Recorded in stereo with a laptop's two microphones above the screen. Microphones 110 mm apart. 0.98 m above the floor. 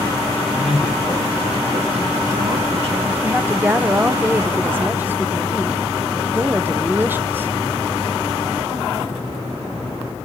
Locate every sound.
0.5 s a man speaking: 65° right (ahead or behind), 1.4 m
3.2 s a woman speaking: 20° right (ahead or behind), 0.6 m